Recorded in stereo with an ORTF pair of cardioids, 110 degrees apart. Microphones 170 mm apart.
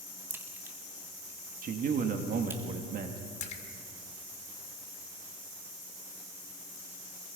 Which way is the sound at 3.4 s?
40° left.